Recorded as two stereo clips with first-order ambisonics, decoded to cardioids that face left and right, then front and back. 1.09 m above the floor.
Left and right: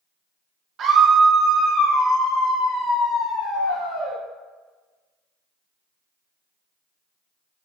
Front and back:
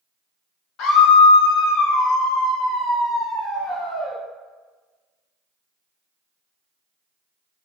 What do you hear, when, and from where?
0.8 s a scream: 35° right, 0.6 m; by 4.2 s 55° left, 1.9 m